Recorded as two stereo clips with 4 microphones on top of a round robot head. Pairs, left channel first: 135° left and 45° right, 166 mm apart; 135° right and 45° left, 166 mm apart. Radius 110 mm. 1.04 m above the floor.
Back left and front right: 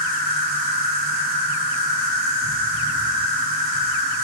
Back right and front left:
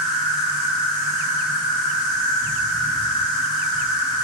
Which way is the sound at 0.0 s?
70° right.